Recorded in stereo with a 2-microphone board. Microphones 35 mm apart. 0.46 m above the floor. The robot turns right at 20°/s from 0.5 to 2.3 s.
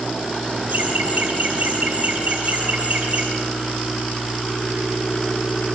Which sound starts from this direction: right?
Laughter, at 0.7 s.